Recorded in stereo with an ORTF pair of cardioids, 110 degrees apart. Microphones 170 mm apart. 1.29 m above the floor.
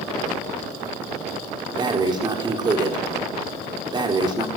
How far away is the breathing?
About 4 m.